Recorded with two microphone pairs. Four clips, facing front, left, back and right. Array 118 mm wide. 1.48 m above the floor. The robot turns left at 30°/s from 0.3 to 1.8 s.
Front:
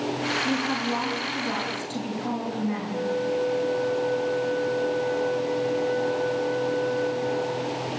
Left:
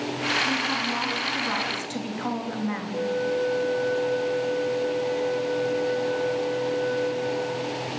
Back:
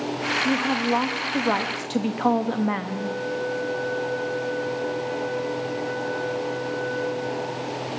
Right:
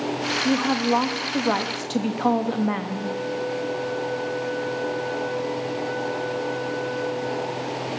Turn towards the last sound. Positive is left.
turn(degrees=-155)